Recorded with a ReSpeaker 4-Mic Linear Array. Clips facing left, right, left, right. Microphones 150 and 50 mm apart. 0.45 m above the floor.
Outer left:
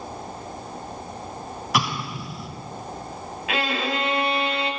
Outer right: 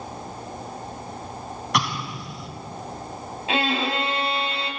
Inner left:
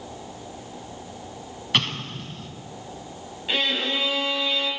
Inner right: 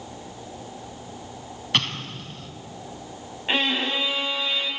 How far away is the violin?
About 2.5 m.